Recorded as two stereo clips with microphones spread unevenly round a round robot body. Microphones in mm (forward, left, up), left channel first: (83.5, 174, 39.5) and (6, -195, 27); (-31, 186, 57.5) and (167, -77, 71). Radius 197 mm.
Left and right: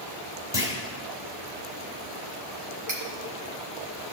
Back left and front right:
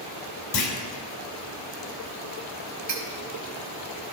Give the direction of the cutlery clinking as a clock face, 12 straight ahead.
2 o'clock.